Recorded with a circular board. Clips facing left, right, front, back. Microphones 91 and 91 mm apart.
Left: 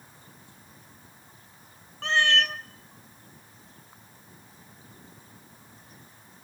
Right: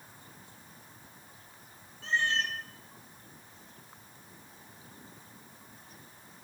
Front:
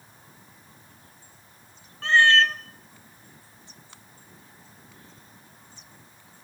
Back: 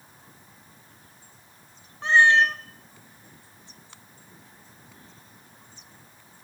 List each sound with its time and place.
2.0 s a cat meowing: 110° left, 0.5 m